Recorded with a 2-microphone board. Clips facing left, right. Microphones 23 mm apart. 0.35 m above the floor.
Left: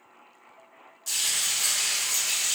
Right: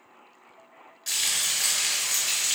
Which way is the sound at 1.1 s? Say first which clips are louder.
Right 1 dB; 40° right (ahead or behind).